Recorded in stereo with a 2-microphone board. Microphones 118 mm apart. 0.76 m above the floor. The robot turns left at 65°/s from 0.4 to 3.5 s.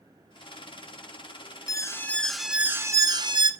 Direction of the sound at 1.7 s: 45° left.